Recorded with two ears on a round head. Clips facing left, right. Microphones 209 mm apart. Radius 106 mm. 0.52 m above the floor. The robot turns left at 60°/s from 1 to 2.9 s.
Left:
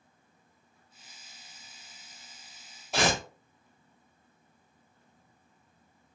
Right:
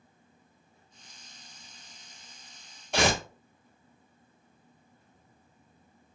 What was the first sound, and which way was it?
Tearing paper, centre (ahead or behind).